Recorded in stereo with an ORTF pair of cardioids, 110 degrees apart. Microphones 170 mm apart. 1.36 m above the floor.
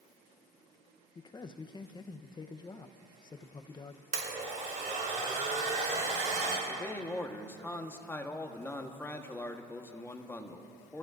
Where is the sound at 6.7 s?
15° left, 1.4 m.